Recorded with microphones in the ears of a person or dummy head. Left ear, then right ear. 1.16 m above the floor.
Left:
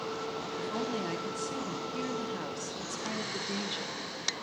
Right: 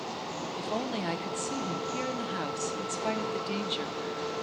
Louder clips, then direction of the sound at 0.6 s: Right 2 dB; 25° right (ahead or behind).